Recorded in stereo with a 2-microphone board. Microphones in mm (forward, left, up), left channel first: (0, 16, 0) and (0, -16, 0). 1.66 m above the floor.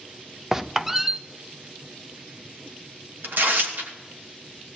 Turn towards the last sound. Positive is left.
turn(degrees=-90)